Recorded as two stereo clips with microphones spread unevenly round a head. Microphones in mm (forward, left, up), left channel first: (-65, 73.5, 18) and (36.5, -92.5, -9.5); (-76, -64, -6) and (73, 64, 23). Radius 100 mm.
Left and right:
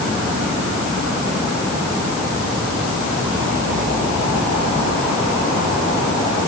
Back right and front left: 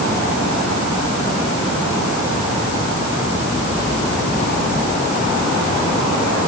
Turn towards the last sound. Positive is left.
No sound to turn to.